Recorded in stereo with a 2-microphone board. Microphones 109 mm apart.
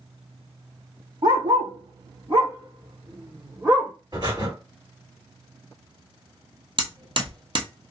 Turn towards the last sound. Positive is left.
turn(degrees=-50)  # may be behind; listen again after turning